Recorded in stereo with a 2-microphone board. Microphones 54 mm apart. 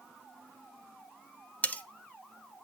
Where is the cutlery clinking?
25° left (ahead or behind), 1.0 m.